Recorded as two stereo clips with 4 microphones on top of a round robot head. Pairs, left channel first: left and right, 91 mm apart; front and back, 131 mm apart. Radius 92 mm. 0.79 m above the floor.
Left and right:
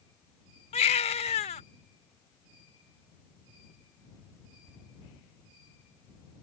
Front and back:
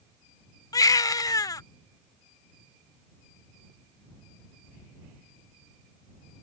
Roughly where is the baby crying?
Ahead left.